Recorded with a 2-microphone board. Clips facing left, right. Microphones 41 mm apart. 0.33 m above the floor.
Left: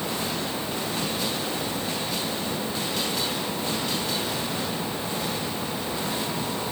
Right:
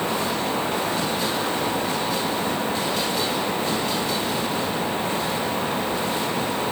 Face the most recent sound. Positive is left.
No sound to turn to.